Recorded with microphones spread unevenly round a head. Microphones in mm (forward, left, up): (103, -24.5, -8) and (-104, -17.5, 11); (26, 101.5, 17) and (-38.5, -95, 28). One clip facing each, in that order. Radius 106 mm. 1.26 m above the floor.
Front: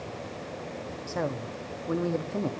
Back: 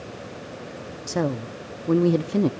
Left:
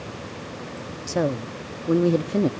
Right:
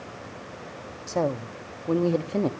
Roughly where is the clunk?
I don't hear a clunk.